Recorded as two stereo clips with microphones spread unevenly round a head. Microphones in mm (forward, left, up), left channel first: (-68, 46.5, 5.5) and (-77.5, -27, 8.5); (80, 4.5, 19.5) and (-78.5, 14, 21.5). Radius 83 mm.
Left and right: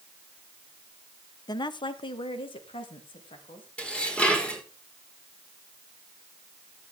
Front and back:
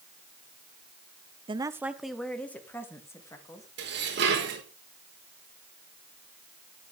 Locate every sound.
1.5 s a woman speaking: 115° left, 1.0 m; by 3.7 s 65° left, 4 m
3.8 s dishes clattering: 160° left, 4.5 m